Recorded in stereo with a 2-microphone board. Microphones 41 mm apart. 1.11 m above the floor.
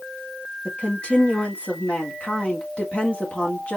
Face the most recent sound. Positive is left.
turn(degrees=30)  # may be behind; listen again after turning